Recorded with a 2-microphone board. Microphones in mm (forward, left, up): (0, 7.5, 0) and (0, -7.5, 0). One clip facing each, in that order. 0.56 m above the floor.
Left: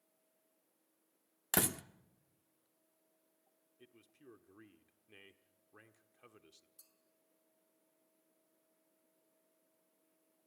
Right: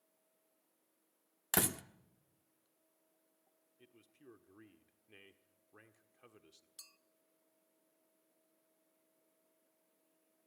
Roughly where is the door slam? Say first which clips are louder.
Even; centre.